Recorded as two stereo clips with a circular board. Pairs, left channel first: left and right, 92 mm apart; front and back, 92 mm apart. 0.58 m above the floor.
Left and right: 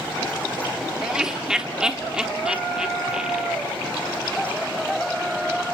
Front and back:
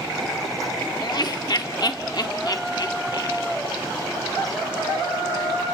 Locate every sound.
1.0 s laughter: 10° right, 1.3 m